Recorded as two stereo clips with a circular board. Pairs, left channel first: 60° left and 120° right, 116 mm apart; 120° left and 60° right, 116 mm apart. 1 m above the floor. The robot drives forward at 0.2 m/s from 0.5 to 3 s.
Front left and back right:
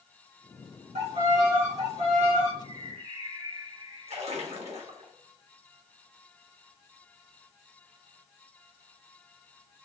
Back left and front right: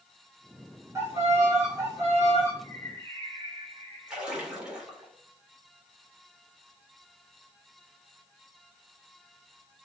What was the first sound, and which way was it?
A violin, 125° right.